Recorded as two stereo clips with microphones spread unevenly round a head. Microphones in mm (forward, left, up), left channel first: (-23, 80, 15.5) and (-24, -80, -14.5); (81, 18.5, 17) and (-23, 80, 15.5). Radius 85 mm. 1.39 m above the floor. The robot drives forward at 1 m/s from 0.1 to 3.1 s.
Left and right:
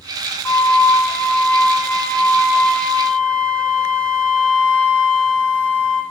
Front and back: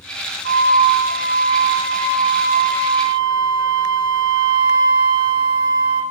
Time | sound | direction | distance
0.5 | a flute | 165° left | 1.1 m